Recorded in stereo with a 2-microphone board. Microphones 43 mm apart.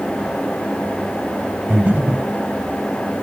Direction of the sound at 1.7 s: 45° right (ahead or behind).